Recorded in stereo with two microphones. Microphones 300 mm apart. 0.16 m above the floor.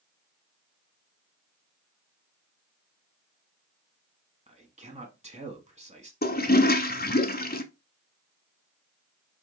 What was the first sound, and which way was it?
A man speaking, 20° right (ahead or behind).